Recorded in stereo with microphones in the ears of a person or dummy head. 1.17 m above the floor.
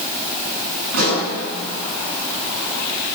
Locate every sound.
0.9 s a pop: 70° right (ahead or behind), 8 m